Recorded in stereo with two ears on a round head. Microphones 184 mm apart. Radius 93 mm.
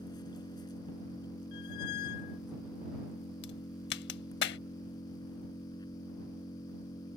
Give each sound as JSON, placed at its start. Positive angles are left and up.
{"t": 0.0, "sound": "an engine running", "side_deg": 20}
{"t": 1.5, "sound": "a squeak", "side_deg": 45}
{"t": 3.4, "sound": "a crack", "side_deg": 55}